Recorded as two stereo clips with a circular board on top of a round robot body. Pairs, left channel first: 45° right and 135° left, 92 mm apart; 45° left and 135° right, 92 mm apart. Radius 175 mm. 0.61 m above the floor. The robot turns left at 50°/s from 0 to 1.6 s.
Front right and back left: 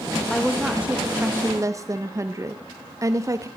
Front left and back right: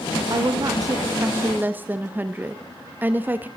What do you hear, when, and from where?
0.3 s a woman speaking: 130° right, 0.8 m; by 3.5 s 165° left, 0.8 m